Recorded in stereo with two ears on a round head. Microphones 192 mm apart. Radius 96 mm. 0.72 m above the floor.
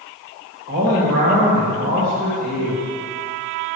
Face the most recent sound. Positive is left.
turn(degrees=-50)  # may be behind; listen again after turning